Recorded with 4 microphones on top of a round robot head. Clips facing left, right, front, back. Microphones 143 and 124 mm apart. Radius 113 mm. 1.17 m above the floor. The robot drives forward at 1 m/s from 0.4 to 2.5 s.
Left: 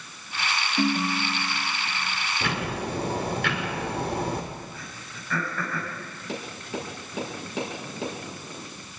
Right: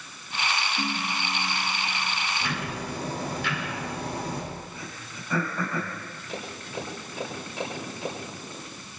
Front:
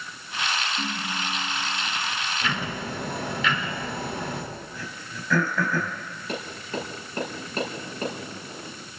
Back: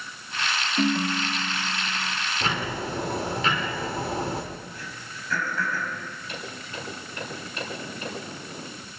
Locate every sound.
0.8 s a ringtone: 130° left, 1.1 m; by 2.2 s 160° left, 2.5 m
2.4 s ticking: 120° left, 5 m
4.7 s throat clearing: 15° right, 4.5 m
6.3 s tapping: 50° left, 7.5 m